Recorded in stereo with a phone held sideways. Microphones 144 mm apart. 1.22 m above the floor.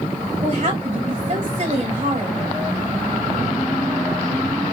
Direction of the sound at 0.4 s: 50° right (ahead or behind).